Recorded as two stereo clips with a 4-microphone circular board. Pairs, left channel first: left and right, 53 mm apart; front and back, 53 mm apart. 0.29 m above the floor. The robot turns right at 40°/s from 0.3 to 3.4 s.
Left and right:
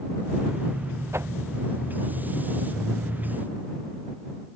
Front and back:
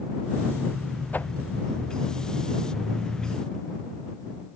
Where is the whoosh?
55° right; by 1.3 s 50° right.